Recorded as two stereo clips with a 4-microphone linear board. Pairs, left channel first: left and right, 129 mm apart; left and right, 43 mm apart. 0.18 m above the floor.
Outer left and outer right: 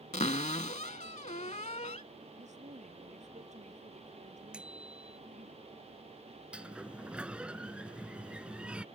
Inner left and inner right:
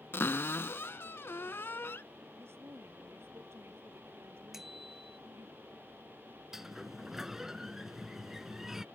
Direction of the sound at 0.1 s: 60° left (ahead or behind).